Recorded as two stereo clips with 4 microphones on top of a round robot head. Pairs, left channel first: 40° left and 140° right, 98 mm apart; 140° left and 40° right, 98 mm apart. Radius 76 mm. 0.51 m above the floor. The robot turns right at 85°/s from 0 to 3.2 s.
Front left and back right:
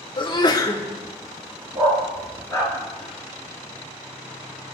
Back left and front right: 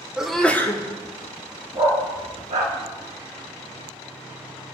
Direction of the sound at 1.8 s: 95° right.